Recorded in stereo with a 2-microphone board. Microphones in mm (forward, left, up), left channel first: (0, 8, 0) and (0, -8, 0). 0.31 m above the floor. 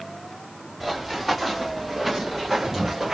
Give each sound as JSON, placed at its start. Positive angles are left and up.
{"t": 0.8, "sound": "running footsteps", "side_deg": 0, "distance_m": 2.0}